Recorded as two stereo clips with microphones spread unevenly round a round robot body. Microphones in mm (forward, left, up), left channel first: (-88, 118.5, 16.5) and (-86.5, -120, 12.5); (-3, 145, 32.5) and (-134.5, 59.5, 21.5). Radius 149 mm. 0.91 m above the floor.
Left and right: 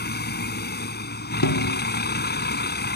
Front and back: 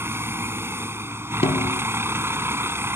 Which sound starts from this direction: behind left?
A vehicle, at 0.0 s.